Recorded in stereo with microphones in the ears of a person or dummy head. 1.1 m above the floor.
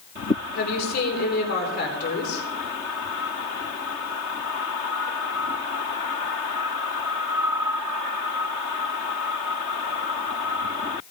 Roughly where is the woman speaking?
Left.